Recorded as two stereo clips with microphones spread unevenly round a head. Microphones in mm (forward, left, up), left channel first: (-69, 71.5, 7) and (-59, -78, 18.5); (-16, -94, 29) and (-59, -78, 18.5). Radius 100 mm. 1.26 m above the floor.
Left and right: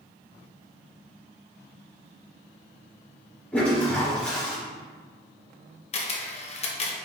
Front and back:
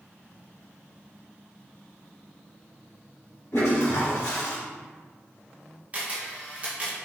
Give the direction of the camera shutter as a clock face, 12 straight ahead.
8 o'clock.